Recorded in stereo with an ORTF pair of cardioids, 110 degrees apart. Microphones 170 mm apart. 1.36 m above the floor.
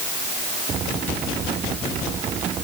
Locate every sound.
Only background noise.